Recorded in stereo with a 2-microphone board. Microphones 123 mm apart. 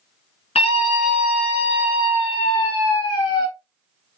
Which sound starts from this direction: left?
A scream, at 0.6 s.